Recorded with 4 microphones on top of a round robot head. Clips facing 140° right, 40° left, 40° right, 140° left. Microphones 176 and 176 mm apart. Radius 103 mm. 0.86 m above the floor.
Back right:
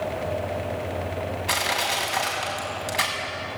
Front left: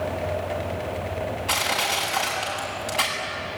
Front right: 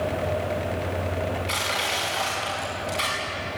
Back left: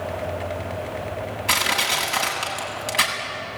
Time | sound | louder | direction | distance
1.5 | crushing | even, back left 2 dB | 145° left | 7 m